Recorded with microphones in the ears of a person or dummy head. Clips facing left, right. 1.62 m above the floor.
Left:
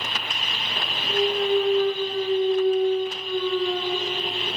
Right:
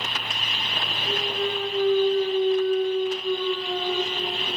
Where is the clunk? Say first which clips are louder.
Left 6 dB; centre (ahead or behind), 4.5 m.